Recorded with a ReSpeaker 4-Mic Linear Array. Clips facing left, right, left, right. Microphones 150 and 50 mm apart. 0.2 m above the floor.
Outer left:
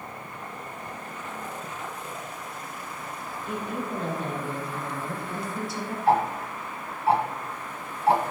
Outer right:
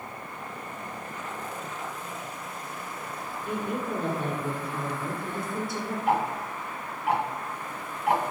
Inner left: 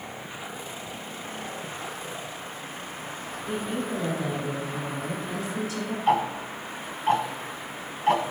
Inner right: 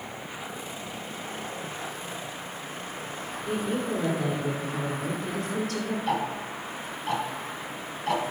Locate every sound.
3.5 s a woman speaking: 55° right (ahead or behind), 2.5 m
6.1 s ticking: 30° left (ahead or behind), 1.0 m